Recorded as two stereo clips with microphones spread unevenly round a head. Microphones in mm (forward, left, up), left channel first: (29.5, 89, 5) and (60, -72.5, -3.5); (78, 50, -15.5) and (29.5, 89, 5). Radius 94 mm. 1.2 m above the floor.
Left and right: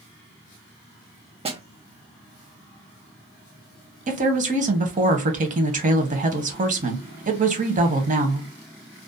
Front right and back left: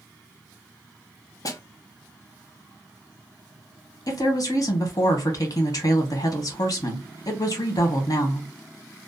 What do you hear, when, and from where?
1.4 s a snare drum: 25° right, 0.6 m
4.1 s a woman speaking: 40° right, 0.8 m